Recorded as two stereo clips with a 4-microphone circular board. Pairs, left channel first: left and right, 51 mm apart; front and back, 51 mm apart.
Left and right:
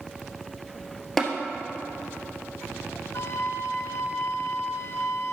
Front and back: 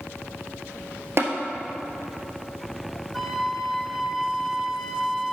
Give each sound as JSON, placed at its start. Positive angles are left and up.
{"t": 1.2, "sound": "tapping", "azimuth_deg": 170, "distance_m": 1.4}
{"t": 3.1, "sound": "a flute", "azimuth_deg": 95, "distance_m": 0.7}